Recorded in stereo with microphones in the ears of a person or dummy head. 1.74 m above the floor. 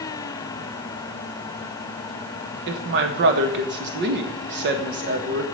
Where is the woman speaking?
60° right (ahead or behind), 1.5 m.